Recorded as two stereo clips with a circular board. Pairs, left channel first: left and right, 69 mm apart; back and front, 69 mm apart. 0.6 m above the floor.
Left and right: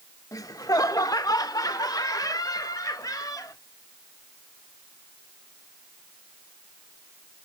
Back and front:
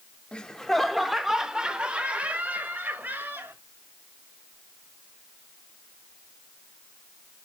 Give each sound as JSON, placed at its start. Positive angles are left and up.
{"t": 0.3, "sound": "laughter", "azimuth_deg": 105, "distance_m": 1.0}